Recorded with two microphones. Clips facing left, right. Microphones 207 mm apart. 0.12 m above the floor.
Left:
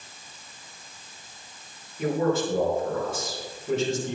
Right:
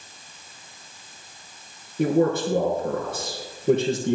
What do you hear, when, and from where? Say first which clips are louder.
2.0 s a man speaking: right 4 dB; 60° right (ahead or behind), 4 m